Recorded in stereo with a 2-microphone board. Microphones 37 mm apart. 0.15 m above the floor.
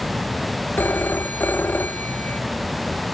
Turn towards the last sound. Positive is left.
turn(degrees=60)  # may be behind; listen again after turning